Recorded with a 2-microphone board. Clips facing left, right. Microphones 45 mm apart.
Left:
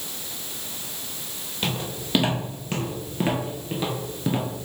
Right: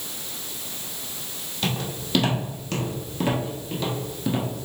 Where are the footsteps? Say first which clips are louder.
Right 1 dB; 20° left (ahead or behind), 1.9 m; by 4.5 s 15° left (ahead or behind), 1.1 m.